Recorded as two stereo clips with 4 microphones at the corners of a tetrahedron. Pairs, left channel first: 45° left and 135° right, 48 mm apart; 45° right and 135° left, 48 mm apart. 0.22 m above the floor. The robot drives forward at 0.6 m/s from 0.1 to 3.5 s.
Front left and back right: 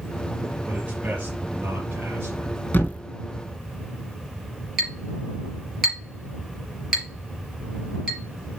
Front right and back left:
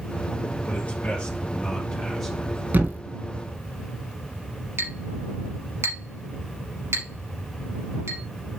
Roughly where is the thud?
Left.